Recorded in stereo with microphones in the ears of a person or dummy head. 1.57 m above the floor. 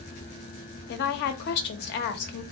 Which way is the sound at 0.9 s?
55° left (ahead or behind).